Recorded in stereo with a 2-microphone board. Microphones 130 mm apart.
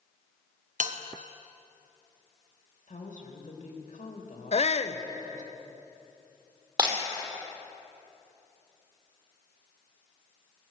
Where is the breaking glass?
35° right (ahead or behind), 2.5 m.